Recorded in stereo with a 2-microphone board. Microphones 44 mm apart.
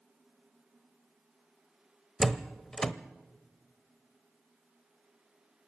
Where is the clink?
No clink in this recording.